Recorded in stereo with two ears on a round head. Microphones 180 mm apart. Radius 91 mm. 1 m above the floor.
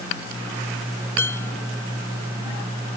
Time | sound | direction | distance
1.2 | dishes clattering | 15° left (ahead or behind) | ?